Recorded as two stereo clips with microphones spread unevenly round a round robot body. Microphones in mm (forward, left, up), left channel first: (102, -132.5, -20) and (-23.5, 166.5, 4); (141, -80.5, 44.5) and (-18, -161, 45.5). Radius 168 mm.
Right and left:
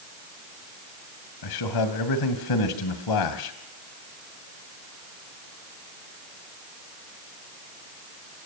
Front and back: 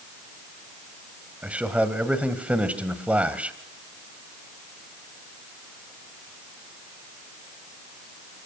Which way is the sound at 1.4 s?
70° right.